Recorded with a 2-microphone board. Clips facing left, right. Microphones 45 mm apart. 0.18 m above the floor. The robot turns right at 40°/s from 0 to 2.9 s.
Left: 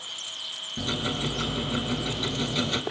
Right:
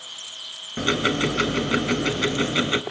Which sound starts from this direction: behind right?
Ticking, at 0.8 s.